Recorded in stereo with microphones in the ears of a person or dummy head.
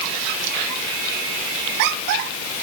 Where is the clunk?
I don't hear a clunk.